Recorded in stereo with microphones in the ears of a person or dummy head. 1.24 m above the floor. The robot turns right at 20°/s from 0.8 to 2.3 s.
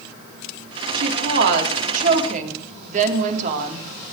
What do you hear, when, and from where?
0.9 s a woman speaking: 75° right (ahead or behind), 3.5 m; by 3.9 s 50° right (ahead or behind), 3.5 m